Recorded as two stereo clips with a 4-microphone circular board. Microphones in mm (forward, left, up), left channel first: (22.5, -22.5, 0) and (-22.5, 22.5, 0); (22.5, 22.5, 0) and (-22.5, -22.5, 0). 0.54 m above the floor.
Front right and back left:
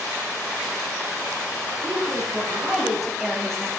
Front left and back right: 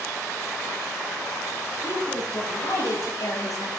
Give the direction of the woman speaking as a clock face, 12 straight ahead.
10 o'clock.